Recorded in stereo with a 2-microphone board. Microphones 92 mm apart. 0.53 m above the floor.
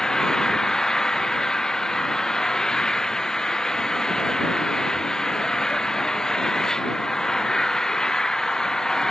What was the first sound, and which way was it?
An engine running, 5° left (ahead or behind).